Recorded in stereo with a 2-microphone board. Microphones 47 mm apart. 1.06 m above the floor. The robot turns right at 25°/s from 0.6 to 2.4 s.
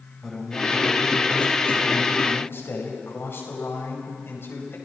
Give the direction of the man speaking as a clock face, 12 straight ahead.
12 o'clock.